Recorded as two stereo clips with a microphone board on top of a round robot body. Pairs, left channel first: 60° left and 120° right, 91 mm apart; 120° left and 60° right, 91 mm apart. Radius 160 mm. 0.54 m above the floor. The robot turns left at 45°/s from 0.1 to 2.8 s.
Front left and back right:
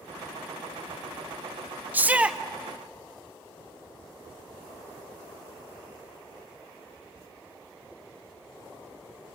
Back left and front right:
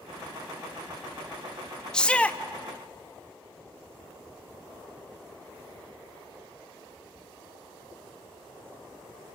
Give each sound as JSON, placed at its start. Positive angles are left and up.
{"t": 1.9, "sound": "a shout", "azimuth_deg": -165, "distance_m": 1.1}